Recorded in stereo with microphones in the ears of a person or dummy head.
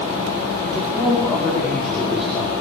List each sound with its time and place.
0.6 s a man speaking: centre (ahead or behind), 5.5 m